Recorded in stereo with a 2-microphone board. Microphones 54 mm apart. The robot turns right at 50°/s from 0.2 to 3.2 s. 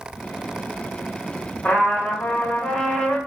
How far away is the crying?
I don't hear crying.